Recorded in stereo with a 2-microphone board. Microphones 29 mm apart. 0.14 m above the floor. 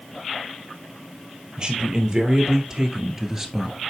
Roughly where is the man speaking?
Right.